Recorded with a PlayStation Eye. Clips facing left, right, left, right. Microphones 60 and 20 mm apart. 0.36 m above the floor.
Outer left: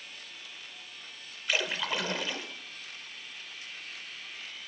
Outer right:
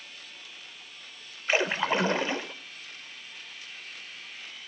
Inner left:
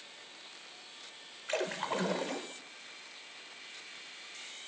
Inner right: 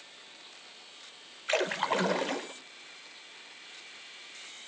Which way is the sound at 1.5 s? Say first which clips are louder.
Outer right 6 dB, inner right 5 dB; 30° right (ahead or behind).